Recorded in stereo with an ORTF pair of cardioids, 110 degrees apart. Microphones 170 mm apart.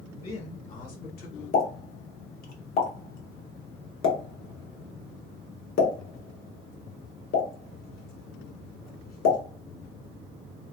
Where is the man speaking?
35° left, 1.4 m; by 1.4 s 75° left, 1.1 m.